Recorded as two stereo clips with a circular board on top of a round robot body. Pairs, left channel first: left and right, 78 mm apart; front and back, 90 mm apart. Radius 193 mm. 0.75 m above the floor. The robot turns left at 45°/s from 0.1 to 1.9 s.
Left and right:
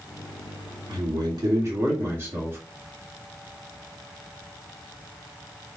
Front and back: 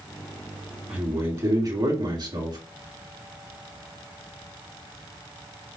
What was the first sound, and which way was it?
A man speaking, 100° right.